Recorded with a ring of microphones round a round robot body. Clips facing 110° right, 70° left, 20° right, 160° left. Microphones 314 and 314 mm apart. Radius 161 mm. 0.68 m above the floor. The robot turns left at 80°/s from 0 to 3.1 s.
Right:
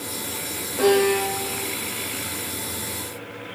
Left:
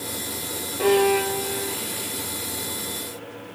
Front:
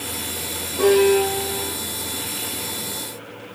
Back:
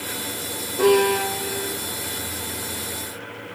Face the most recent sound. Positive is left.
turn(degrees=65)